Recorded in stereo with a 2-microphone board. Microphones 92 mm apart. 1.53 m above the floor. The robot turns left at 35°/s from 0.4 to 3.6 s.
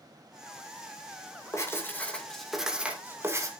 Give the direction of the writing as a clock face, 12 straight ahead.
11 o'clock.